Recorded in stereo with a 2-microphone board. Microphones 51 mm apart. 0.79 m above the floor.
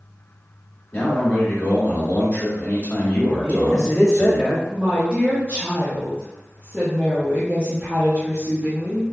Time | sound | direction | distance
0.9 | a man speaking | 35° left (ahead or behind) | 1.3 m
3.4 | a man speaking | 20° right (ahead or behind) | 1.6 m
4.7 | a woman speaking | 25° right (ahead or behind) | 0.7 m